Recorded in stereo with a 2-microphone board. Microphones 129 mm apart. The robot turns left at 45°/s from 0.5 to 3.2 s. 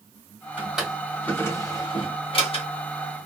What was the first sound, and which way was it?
A drawer, 15° right (ahead or behind).